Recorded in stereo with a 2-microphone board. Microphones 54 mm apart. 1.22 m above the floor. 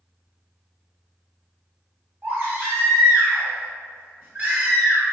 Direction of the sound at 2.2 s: 30° right (ahead or behind).